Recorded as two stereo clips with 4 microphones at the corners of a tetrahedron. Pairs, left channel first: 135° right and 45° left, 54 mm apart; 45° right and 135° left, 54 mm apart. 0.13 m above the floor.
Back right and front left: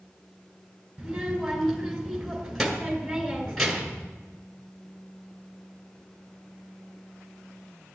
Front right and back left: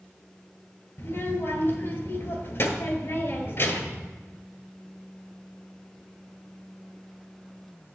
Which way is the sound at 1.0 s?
45° right.